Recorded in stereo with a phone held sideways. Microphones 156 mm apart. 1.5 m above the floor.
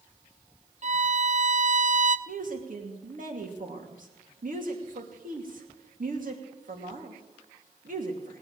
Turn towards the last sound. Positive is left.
turn(degrees=-60)  # may be behind; listen again after turning